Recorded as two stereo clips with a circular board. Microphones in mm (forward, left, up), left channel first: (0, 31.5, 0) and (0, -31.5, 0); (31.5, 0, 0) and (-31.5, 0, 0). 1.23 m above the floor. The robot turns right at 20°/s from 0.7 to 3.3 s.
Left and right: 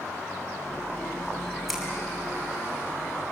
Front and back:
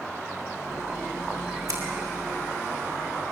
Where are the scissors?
175° right, 6 m.